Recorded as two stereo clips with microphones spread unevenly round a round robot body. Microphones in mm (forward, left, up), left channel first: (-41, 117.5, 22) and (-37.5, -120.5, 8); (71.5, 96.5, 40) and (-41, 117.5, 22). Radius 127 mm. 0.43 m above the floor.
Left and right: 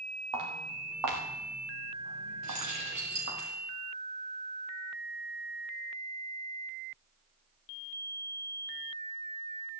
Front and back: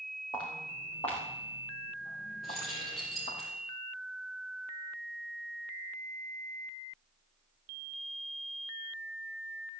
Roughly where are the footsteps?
Right.